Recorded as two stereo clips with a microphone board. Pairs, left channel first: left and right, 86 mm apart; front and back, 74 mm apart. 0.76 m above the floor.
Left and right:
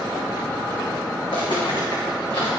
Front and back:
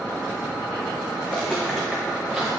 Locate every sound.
1.2 s footsteps: 70° left, 2 m; by 2.5 s 100° left, 2.5 m